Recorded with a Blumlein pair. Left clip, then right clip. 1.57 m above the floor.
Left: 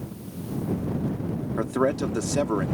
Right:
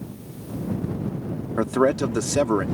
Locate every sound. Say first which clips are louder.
1.6 s a man speaking: right 4 dB; 15° right